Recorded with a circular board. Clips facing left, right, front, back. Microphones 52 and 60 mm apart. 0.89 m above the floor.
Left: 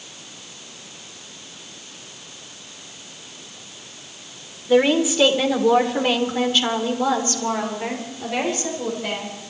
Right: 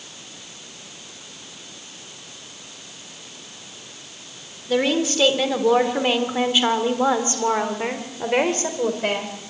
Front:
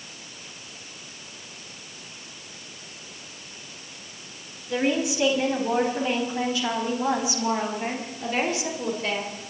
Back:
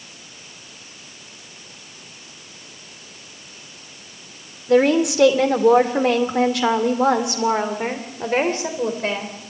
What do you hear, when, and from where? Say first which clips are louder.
4.7 s a woman speaking: left 4 dB, back 9 dB; 165° left, 3 m; by 9.5 s 125° right, 4 m